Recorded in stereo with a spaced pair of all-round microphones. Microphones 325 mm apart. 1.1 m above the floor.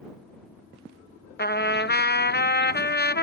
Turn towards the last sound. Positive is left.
turn(degrees=30)  # may be behind; listen again after turning